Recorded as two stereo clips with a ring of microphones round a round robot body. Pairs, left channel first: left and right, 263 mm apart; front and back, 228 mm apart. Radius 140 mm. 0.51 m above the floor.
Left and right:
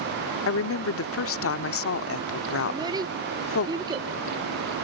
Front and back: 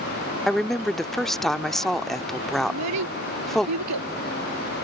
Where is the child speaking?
165° right.